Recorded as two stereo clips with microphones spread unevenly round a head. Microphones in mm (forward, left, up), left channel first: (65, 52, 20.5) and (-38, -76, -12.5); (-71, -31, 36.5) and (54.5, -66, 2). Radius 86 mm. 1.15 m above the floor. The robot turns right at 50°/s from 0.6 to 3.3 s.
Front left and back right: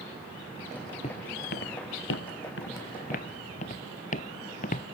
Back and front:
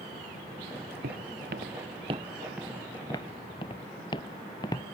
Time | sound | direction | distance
1.0 | footsteps | straight ahead | ?